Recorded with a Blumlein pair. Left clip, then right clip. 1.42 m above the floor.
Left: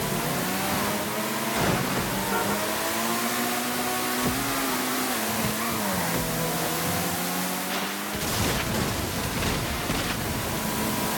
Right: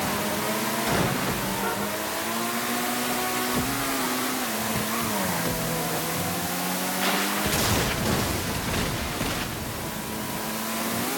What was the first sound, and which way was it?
Only background noise.